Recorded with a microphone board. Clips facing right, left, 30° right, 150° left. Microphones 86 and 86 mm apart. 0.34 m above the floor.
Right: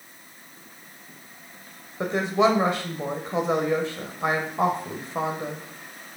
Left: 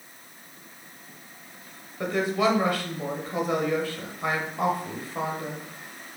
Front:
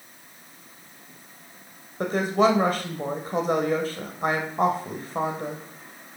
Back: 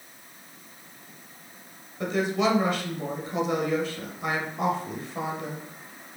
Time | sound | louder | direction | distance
2.0 | a woman speaking | right 3 dB, front 4 dB | 35° right | 1.1 m